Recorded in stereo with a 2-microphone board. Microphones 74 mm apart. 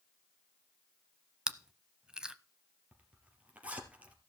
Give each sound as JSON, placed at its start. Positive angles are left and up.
{"t": 1.5, "sound": "chewing", "side_deg": -10, "distance_m": 0.7}
{"t": 2.9, "sound": "a zipper", "side_deg": -20, "distance_m": 3.0}